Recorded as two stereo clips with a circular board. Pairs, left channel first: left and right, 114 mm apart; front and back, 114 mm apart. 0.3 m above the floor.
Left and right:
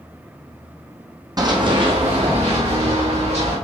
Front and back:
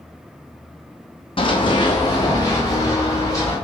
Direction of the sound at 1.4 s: 35° right.